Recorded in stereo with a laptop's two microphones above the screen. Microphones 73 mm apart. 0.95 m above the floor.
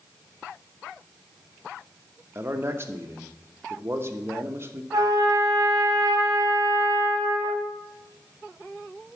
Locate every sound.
2.4 s a man speaking: 35° right (ahead or behind), 1.0 m
4.9 s a trumpet: 55° right (ahead or behind), 1.7 m